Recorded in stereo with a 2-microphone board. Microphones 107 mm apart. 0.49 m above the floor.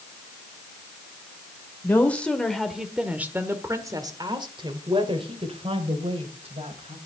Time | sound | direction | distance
1.8 | a woman speaking | 15° left (ahead or behind) | 1.8 m